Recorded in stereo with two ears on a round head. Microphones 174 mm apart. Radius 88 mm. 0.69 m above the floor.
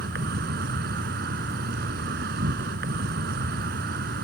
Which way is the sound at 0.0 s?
55° right (ahead or behind).